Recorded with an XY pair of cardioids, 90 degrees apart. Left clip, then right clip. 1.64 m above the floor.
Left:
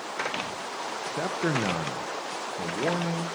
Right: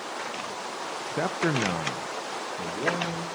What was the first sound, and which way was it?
A man speaking, 30° right.